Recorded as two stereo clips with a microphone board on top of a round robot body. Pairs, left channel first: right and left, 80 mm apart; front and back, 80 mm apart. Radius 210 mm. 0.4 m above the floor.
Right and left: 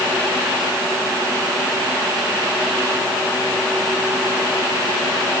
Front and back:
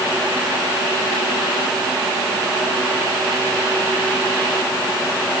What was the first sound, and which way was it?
Only background noise.